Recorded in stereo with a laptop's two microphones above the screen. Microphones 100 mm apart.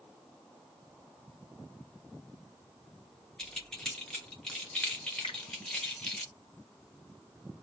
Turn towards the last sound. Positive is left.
turn(degrees=65)  # may be behind; listen again after turning